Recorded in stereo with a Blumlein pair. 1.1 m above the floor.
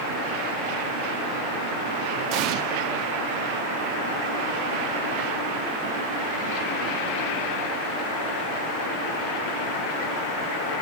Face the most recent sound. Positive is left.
turn(degrees=-40)